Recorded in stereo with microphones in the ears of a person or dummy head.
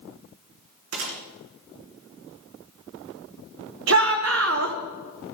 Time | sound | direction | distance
0.9 | a gunshot | 75° right (ahead or behind) | 3.5 m
3.9 | a shout | 65° right (ahead or behind) | 1.4 m